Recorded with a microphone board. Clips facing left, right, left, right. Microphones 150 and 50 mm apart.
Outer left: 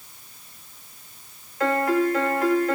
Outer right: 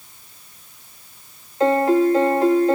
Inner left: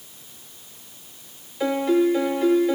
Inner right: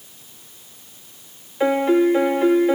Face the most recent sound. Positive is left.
turn(degrees=-25)  # may be behind; listen again after turning